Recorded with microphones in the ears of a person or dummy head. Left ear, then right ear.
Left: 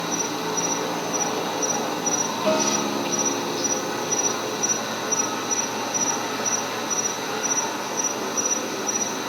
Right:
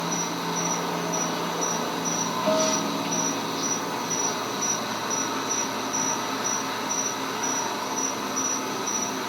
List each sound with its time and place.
0.0 s an insect: 25° right (ahead or behind), 3.5 m
2.5 s a guitar: 15° left (ahead or behind), 1.2 m